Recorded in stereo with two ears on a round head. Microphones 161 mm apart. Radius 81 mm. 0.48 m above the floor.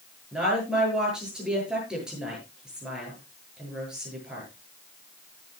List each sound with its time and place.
0.3 s a woman speaking: 5° right (ahead or behind), 8.5 m